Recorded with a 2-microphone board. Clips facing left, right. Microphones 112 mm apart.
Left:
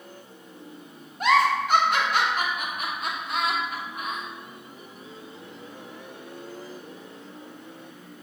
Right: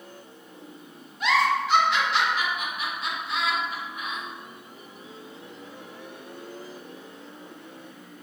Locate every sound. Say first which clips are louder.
1.2 s a giggle: left 2 dB; 45° left (ahead or behind), 0.6 m